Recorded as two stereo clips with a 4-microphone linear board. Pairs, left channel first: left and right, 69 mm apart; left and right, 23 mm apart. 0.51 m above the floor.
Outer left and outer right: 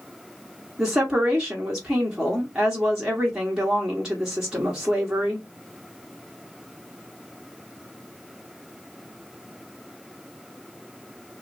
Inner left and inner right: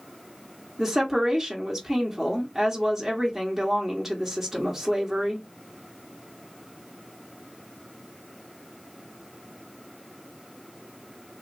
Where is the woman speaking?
10° right (ahead or behind), 1.2 m.